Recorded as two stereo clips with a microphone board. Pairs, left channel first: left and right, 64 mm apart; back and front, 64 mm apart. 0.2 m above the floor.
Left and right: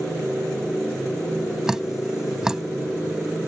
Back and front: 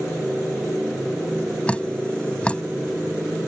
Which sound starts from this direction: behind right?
Dripping, at 1.7 s.